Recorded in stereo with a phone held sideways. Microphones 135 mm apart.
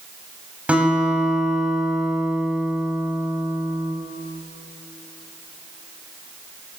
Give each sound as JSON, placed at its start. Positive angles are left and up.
{"t": 0.7, "sound": "a guitar", "side_deg": -10, "distance_m": 6.5}